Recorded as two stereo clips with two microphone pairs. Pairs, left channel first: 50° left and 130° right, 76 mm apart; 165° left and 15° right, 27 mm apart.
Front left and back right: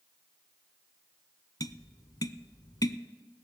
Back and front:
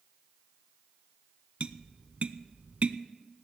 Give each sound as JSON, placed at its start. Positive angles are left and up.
{"t": 1.6, "sound": "tapping", "azimuth_deg": 15, "distance_m": 0.6}